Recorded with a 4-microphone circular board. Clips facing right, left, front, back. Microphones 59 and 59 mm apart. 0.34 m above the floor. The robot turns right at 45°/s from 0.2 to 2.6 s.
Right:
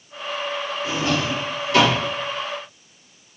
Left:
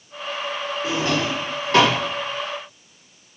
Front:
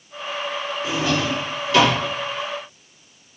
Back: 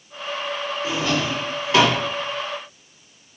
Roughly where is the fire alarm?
No fire alarm in this recording.